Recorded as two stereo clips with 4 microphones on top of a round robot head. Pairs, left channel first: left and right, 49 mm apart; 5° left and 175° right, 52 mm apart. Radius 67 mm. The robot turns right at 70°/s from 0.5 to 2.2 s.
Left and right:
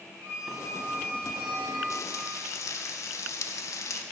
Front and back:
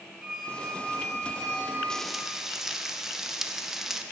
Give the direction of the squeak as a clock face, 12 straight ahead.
3 o'clock.